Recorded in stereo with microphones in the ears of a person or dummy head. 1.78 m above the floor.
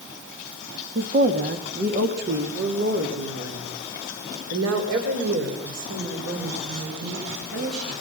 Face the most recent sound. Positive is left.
turn(degrees=-80)